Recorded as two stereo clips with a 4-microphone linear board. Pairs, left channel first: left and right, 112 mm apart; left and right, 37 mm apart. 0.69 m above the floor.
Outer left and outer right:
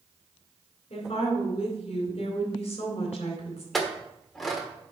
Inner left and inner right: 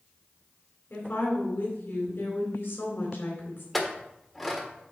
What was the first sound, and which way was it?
A woman speaking, 65° left (ahead or behind).